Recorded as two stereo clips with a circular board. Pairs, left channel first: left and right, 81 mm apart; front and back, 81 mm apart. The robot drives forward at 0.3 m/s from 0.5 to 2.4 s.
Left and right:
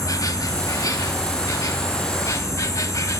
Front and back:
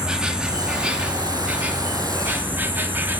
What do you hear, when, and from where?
0.0 s an insect: 105° left, 2 m; by 3.2 s 125° left, 2.5 m